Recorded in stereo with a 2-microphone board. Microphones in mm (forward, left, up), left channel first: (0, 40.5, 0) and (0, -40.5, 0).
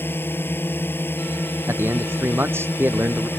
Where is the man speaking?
25° right (ahead or behind).